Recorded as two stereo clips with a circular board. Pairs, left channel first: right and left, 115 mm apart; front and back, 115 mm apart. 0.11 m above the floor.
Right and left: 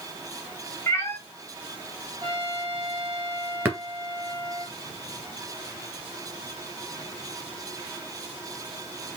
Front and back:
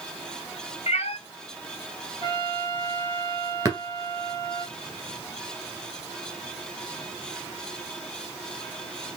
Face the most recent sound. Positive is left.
turn(degrees=145)